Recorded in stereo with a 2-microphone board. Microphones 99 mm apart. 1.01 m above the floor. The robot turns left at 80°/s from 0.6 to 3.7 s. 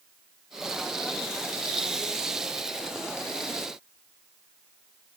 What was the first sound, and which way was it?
Only background noise.